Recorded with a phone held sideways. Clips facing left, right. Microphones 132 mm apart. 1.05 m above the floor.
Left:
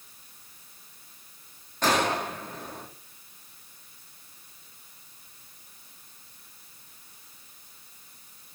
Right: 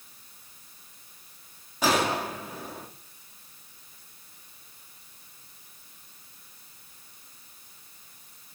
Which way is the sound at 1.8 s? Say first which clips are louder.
Even; 5° right (ahead or behind).